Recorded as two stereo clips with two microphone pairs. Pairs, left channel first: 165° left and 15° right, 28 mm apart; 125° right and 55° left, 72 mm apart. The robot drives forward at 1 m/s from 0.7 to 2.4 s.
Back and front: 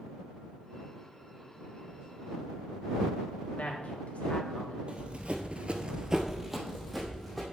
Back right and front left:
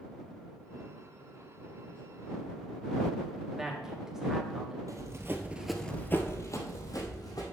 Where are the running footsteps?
30° left, 1.3 m; by 7.4 s 110° right, 2.5 m.